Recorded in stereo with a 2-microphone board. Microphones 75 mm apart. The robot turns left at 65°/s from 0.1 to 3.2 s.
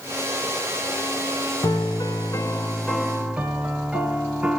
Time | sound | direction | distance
1.6 | a piano | 85° left | 0.9 m